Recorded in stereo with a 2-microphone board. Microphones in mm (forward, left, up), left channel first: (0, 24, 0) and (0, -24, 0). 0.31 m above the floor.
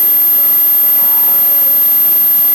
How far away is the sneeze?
No sneeze in this recording.